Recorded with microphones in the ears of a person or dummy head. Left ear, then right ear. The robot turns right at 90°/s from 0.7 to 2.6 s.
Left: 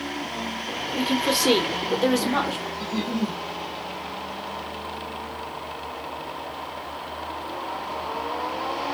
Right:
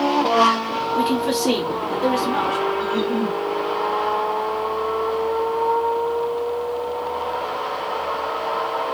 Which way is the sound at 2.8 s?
80° left.